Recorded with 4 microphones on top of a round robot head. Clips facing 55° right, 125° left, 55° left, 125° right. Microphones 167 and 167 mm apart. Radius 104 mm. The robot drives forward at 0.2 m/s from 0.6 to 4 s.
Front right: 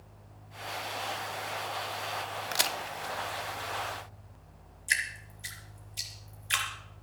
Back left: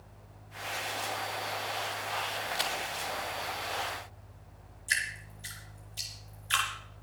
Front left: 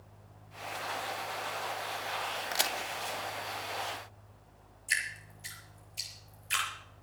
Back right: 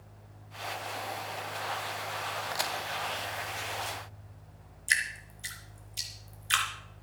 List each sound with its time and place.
2.5 s a crack: 10° right, 0.5 m
4.9 s dripping: 130° right, 3.5 m